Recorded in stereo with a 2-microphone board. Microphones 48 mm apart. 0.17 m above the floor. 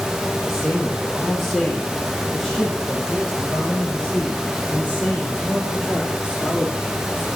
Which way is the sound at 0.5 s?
10° right (ahead or behind).